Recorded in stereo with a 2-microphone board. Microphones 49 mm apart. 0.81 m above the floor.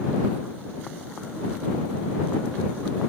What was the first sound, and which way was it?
Only background noise.